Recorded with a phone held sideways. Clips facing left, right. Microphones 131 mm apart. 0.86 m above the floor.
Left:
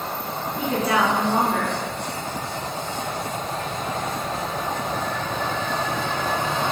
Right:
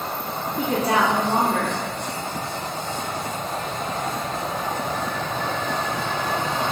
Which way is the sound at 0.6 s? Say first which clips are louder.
Right 1 dB; 35° right (ahead or behind).